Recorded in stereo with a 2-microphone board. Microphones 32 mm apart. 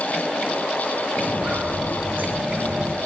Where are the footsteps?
60° right (ahead or behind), 8.5 m; by 3.0 s 75° right (ahead or behind), 7 m.